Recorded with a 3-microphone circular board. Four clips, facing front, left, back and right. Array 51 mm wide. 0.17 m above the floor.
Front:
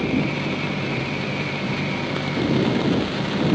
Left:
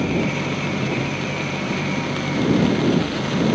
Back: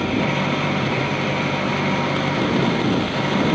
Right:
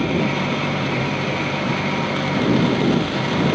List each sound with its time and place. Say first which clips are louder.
0.0 s an engine running: right 2 dB, back 2 dB; 150° right